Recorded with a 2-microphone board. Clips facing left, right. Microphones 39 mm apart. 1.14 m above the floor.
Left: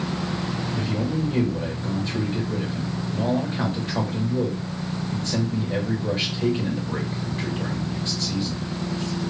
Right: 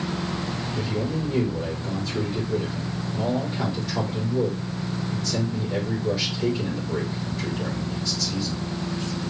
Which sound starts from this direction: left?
A man speaking, at 0.7 s.